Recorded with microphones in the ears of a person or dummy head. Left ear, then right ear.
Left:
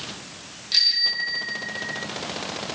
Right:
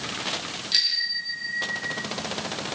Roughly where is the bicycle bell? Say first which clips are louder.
Left 4 dB; centre.